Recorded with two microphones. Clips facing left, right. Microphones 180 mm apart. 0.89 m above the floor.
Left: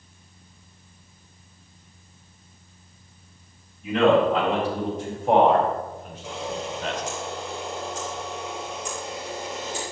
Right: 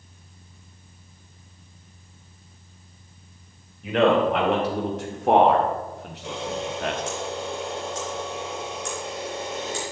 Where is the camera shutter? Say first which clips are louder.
Right 2 dB; 75° right (ahead or behind), 4 m.